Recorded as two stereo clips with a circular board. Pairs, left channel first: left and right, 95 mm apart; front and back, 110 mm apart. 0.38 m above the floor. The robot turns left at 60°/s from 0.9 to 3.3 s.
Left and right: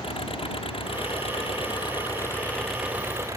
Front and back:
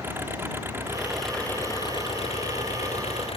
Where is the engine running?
110° left; by 3.4 s 35° right.